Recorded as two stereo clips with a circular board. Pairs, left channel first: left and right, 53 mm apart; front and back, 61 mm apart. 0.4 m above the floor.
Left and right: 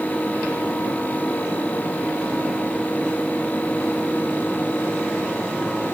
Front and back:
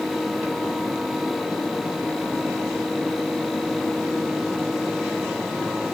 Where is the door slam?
No door slam in this recording.